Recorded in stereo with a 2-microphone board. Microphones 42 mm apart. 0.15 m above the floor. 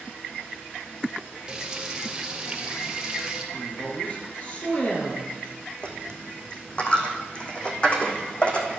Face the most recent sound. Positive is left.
turn(degrees=25)  # may be behind; listen again after turning